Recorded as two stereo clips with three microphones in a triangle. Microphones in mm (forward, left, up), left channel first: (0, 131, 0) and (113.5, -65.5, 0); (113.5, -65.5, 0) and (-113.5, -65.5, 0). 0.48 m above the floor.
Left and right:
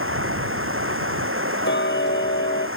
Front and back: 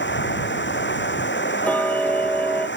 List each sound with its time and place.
0.0 s running water: 35° right
1.6 s ticking: 85° left